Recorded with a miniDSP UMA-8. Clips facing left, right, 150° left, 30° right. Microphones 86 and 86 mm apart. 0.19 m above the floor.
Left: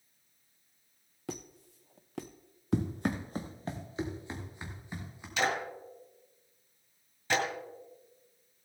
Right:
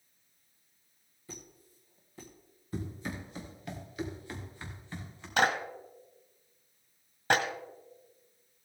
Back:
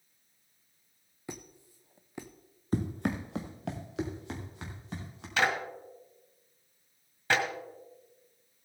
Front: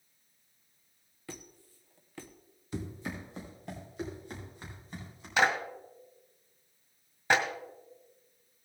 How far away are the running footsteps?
About 1.2 m.